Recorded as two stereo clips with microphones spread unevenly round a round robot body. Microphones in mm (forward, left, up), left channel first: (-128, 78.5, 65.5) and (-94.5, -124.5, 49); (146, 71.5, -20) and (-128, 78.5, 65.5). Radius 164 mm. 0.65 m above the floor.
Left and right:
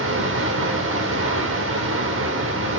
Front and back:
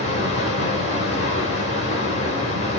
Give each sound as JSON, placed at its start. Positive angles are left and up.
{"t": 0.0, "sound": "running water", "azimuth_deg": -65, "distance_m": 2.0}